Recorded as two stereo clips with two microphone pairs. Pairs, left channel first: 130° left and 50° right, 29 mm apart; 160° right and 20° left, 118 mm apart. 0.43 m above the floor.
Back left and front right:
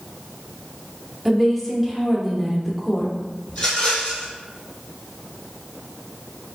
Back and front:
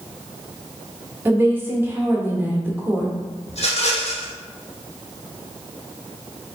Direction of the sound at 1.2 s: 50° left.